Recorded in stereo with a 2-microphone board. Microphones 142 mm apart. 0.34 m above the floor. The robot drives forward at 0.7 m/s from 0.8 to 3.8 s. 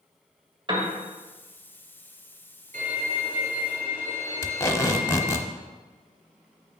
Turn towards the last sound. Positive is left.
turn(degrees=20)  # may be behind; listen again after turning